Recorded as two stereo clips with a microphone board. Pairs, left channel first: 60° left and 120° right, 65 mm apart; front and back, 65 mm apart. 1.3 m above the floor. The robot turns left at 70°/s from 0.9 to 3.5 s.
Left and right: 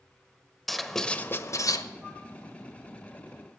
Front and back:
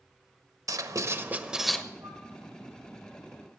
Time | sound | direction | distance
0.7 | writing | 150° left | 0.9 m
2.0 | a flute | 155° left | 3.5 m